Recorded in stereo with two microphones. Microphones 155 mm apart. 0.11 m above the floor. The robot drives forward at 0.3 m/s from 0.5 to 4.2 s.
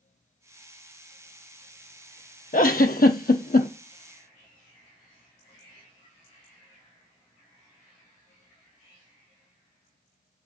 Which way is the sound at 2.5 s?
65° left (ahead or behind).